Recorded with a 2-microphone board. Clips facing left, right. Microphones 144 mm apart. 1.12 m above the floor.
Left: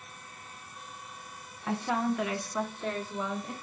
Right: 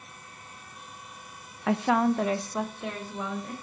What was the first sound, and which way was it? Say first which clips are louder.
A woman speaking: right 6 dB; 80° right.